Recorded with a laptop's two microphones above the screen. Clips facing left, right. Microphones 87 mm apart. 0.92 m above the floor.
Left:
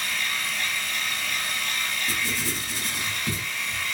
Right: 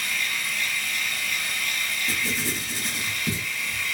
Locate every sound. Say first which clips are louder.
0.0 s a machine running: even; 55° left (ahead or behind), 2 m
2.1 s writing: right 1 dB; 25° right (ahead or behind), 1.8 m